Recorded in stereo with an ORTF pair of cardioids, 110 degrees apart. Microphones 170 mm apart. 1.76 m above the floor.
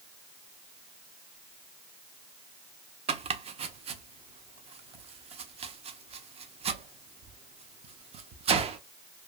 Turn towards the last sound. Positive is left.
turn(degrees=-35)